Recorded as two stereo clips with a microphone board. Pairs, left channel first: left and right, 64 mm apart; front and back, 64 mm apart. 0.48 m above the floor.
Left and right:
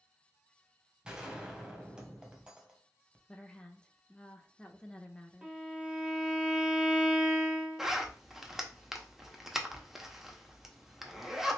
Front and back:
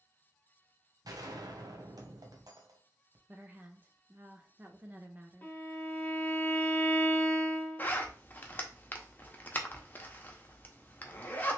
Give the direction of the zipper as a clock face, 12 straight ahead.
1 o'clock.